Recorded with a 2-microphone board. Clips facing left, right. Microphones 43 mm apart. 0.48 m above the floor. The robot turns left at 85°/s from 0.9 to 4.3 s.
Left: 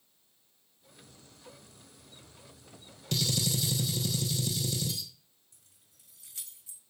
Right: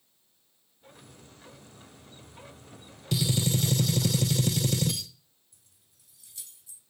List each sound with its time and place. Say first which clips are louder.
3.1 s a gunshot: right 4 dB; 5° right, 0.7 m; by 5.1 s 105° right, 0.7 m
5.5 s keys jangling: left 2 dB; 75° left (ahead or behind), 1.6 m